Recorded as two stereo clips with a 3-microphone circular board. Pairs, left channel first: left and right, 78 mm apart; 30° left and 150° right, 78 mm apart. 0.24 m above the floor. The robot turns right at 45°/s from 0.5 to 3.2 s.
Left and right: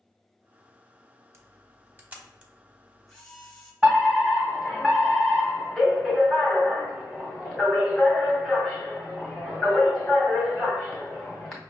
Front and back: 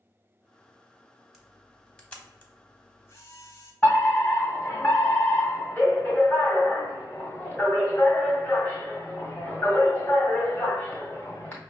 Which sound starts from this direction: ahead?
A fire alarm, at 3.8 s.